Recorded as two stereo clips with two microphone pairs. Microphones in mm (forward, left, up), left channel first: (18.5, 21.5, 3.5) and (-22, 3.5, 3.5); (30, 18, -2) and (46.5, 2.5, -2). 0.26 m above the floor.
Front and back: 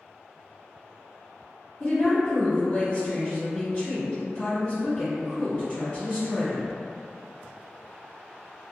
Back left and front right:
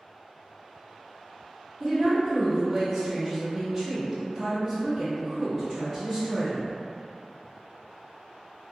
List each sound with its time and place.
1.8 s a woman speaking: 45° left, 1.3 m